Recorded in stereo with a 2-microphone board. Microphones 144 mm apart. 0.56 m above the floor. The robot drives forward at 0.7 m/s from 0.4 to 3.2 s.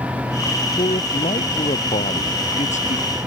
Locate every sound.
0.8 s a man speaking: 50° left (ahead or behind); by 3.1 s 55° left (ahead or behind)